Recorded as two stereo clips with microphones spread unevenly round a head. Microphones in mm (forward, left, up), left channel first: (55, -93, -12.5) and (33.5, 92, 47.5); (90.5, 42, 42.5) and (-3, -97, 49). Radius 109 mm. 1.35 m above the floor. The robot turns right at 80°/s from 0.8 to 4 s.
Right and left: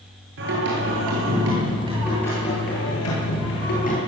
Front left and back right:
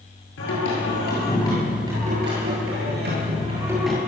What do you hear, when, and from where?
0.4 s singing: 80° left, 10 m; by 4.0 s 30° right, 10 m